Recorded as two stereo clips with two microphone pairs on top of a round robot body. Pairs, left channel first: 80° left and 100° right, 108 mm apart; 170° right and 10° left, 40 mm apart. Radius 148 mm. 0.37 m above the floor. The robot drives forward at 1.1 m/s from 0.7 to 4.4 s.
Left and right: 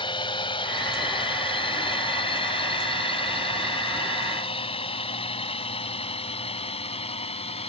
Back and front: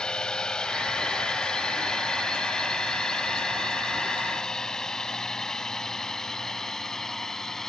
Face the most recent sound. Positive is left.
turn(degrees=110)